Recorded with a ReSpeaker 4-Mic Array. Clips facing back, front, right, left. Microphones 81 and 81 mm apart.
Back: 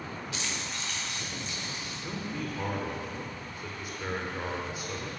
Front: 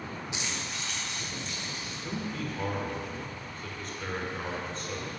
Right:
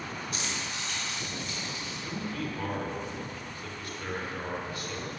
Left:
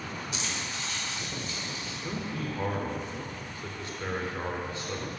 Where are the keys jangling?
65° right, 0.7 m; by 1.9 s 95° right, 3 m.